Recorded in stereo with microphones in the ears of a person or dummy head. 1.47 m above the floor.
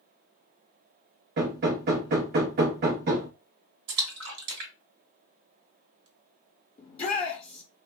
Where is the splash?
55° right (ahead or behind), 0.9 m.